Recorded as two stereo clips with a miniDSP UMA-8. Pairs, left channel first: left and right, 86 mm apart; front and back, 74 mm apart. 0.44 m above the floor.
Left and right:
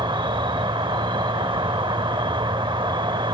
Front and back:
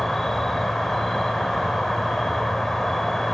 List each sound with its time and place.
0.0 s an insect: 85° right, 0.7 m